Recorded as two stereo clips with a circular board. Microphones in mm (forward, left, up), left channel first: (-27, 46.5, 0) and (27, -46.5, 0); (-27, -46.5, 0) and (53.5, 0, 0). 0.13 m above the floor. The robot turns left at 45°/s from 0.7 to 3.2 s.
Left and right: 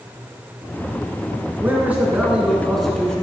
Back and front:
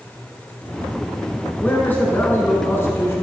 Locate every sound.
1.6 s a man speaking: 100° right, 1.2 m; by 3.2 s 170° right, 1.2 m